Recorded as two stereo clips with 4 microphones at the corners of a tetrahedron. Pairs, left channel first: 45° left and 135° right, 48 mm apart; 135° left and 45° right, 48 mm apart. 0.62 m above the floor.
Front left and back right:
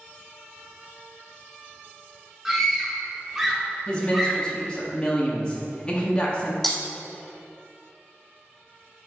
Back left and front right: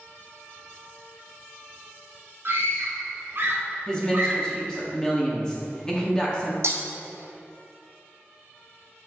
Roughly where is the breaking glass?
Ahead right.